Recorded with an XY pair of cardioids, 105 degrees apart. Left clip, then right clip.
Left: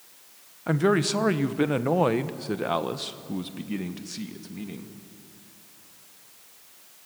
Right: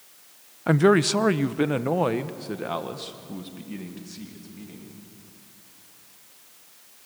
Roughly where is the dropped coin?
I don't hear a dropped coin.